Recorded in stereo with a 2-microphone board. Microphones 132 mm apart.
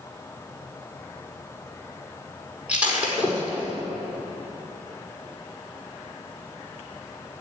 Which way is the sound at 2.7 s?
10° right (ahead or behind).